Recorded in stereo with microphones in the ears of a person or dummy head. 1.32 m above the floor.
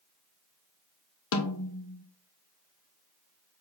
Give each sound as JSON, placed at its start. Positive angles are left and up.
{"t": 1.3, "sound": "a snare drum", "side_deg": 75, "distance_m": 2.0}